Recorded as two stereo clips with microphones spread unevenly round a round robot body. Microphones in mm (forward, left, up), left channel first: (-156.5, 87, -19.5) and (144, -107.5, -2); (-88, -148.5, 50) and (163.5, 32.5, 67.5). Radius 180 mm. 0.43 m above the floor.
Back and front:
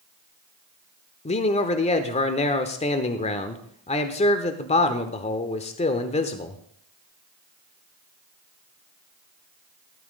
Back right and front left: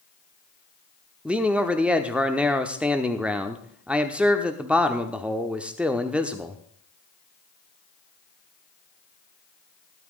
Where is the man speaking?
125° left, 0.8 m.